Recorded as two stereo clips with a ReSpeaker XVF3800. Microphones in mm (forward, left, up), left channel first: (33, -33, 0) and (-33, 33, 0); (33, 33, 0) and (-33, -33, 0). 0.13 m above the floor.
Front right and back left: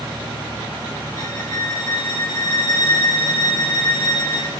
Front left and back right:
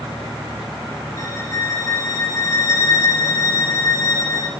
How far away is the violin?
About 2.0 m.